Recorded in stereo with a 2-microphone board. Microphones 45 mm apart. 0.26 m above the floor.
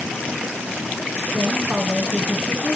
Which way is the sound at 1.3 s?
60° right (ahead or behind).